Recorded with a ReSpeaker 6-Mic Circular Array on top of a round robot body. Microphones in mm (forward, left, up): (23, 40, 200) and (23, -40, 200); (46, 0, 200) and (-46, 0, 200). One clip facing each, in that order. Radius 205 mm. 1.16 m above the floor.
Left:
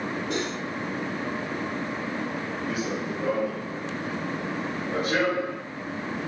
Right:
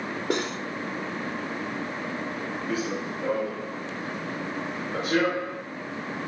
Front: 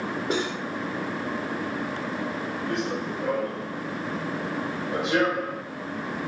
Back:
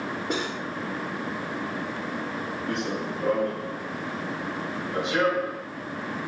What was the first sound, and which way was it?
Cutlery clinking, 85° right.